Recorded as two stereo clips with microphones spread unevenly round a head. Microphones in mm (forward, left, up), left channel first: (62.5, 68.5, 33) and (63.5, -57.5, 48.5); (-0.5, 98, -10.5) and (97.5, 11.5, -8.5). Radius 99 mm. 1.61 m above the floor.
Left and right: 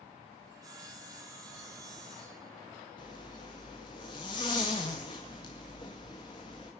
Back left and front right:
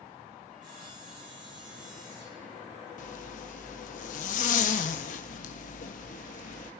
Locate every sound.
0.5 s sawing: 30° right, 8 m
3.0 s a zipper: 160° left, 1.5 m